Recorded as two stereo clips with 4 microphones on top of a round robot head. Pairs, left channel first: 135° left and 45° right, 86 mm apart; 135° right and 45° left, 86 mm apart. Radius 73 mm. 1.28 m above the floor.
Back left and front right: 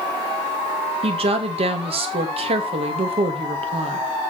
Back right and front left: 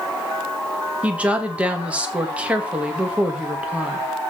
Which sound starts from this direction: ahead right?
A woman speaking, at 1.0 s.